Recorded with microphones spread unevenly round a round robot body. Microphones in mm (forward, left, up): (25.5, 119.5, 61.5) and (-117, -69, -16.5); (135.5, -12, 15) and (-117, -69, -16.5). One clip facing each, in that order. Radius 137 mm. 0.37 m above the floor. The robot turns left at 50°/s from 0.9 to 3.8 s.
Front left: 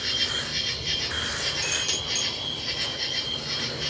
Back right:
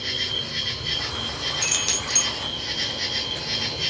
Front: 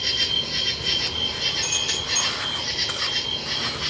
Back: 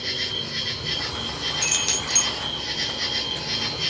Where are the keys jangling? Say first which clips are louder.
Back right 2 dB, back 1 dB; 145° right, 0.8 m; by 2.3 s straight behind, 0.8 m.